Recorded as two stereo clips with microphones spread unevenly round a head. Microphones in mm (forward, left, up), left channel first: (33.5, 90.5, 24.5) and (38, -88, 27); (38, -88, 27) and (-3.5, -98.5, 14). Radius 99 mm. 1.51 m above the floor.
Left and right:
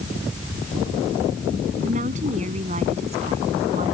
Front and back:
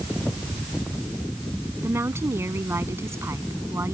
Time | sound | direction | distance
1.8 | a woman speaking | 145° right | ?